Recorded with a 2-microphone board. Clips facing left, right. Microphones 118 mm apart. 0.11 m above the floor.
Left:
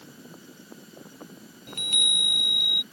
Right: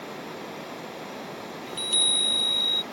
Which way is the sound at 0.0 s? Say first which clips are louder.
Right 10 dB; 75° right (ahead or behind).